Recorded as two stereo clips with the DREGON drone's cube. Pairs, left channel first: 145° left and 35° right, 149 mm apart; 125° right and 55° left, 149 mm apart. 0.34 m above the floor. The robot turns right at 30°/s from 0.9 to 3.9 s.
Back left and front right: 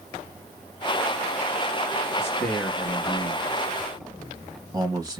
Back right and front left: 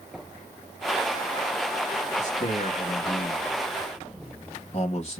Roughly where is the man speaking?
Behind right.